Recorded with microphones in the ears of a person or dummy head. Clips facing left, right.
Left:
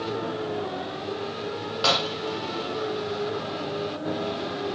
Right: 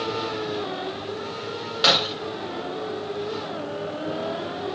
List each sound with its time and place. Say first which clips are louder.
1.8 s breaking glass: right 2 dB; 20° right (ahead or behind), 1.3 m